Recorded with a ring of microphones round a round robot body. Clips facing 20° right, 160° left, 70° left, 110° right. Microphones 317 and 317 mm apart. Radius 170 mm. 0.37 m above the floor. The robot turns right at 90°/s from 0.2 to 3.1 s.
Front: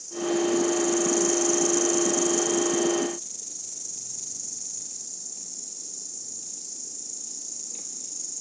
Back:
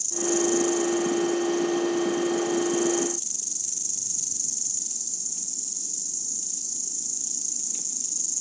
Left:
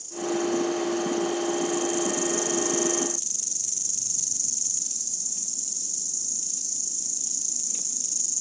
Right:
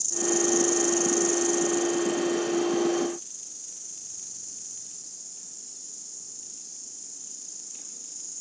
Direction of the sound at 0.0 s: 165° right.